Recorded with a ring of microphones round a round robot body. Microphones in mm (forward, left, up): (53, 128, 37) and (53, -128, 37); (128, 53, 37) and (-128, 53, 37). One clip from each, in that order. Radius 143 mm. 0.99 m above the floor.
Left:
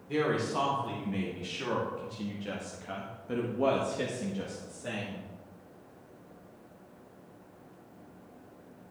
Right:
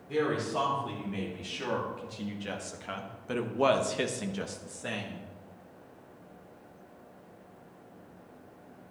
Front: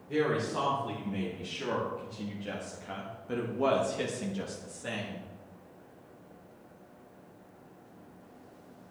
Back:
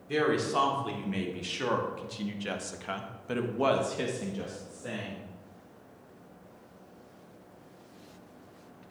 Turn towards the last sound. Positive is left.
turn(degrees=-55)